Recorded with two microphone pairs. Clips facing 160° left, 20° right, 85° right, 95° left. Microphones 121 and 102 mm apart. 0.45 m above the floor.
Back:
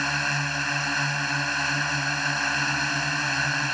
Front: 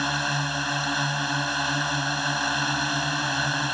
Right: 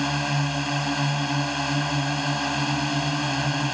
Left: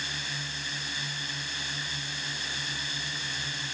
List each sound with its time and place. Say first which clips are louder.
0.0 s a drone: front 2 dB, right 14 dB; 95° right